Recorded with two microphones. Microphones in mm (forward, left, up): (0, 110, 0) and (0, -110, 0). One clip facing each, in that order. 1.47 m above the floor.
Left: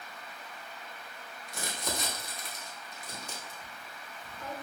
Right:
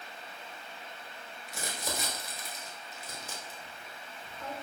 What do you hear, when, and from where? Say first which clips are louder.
1.5 s crumpling: left 1 dB; 5° right (ahead or behind), 0.9 m